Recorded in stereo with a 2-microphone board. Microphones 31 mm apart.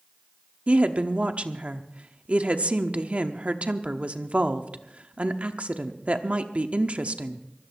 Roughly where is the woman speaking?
Right.